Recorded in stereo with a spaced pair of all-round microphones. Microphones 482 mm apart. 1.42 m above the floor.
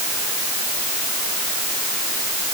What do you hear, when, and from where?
Only background noise.